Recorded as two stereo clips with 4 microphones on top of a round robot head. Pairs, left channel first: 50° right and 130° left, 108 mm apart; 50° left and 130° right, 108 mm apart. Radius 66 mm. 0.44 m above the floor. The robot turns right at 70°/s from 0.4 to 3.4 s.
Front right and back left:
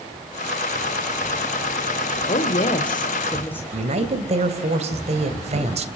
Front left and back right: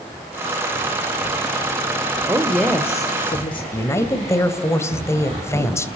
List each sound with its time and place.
2.2 s a woman speaking: 60° right, 2.0 m; by 3.6 s 20° left, 2.0 m
3.7 s a man speaking: 115° left, 2.5 m